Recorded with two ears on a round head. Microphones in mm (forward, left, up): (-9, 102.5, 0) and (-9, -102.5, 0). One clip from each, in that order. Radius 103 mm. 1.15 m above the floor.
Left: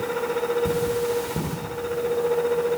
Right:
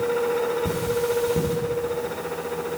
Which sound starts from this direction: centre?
Cutlery clinking, at 0.7 s.